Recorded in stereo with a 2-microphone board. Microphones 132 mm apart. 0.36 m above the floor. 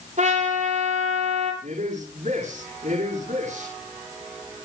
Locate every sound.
0.2 s a trumpet: 65° right (ahead or behind), 8 m
1.6 s a man speaking: 65° right (ahead or behind), 6.5 m